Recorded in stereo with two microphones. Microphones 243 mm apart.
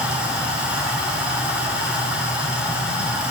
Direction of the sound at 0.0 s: 5° right (ahead or behind).